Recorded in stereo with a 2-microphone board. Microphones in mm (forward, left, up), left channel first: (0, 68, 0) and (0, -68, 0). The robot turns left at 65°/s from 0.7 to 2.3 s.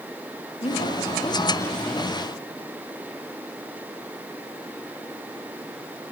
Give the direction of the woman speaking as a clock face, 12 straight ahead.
9 o'clock.